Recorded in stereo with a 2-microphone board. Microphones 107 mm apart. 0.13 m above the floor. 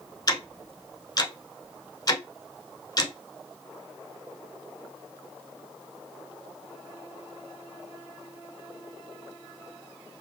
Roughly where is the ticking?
Left.